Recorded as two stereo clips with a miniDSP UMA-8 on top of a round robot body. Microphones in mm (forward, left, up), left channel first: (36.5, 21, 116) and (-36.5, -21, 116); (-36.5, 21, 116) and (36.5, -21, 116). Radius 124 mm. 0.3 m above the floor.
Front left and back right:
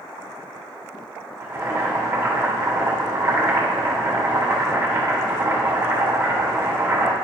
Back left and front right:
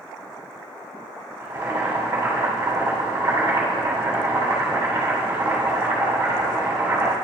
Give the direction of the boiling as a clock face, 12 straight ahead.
3 o'clock.